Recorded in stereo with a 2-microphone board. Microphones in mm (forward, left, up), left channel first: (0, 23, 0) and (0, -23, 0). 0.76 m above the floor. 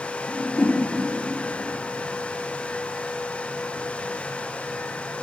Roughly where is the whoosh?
Left.